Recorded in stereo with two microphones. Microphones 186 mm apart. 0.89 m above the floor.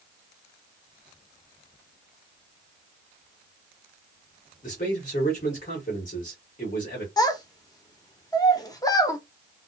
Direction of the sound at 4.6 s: 45° left (ahead or behind).